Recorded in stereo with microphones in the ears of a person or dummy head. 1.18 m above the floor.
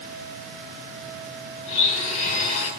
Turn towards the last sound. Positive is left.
turn(degrees=40)  # may be behind; listen again after turning